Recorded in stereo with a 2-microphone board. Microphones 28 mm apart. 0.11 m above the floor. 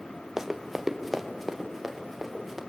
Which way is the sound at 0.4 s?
15° right (ahead or behind).